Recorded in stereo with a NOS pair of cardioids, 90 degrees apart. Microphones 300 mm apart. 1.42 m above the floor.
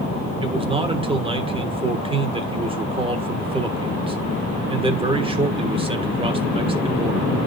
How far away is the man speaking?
About 1.4 m.